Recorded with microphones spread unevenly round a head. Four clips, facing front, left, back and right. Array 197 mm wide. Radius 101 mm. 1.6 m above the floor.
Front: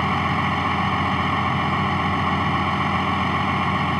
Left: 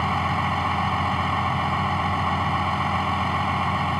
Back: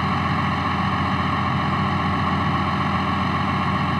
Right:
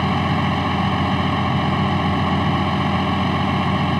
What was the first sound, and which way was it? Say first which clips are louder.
A vehicle: right 3 dB, front 1 dB; 95° right.